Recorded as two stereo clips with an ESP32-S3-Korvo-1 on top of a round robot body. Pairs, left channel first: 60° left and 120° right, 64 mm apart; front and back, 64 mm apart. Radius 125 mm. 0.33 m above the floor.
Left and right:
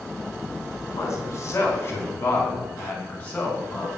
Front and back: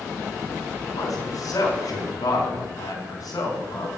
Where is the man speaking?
20° left, 4 m; by 3.9 s 10° right, 5.5 m.